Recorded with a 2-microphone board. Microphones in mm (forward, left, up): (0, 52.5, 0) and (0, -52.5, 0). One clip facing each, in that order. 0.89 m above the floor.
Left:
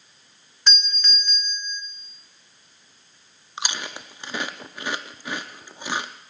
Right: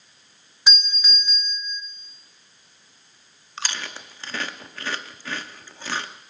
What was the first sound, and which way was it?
A doorbell, 10° right (ahead or behind).